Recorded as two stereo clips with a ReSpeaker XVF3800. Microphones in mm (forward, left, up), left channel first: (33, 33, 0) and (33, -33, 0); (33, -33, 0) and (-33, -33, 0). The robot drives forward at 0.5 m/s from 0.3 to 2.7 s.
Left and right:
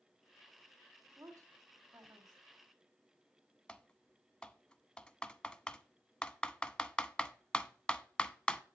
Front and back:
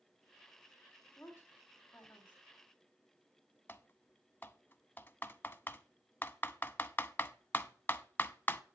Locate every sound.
1.2 s a woman speaking: 55° right, 2.5 m; by 2.4 s 65° right, 2 m
3.7 s typing on a keyboard: 20° left, 0.6 m